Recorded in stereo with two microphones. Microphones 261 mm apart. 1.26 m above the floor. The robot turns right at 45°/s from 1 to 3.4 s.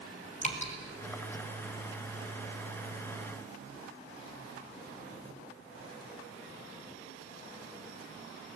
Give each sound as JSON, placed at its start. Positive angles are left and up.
{"t": 0.4, "sound": "dripping", "side_deg": 25, "distance_m": 3.5}